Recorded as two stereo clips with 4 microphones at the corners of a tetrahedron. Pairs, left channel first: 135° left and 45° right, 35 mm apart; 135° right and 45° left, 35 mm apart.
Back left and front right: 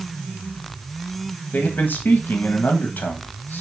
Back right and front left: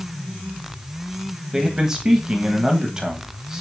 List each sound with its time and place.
1.5 s a man speaking: 115° left, 1.4 m